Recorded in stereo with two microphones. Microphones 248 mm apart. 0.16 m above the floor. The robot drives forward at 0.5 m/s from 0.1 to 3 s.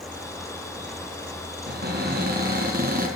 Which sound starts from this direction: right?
A cupboard door, at 1.7 s.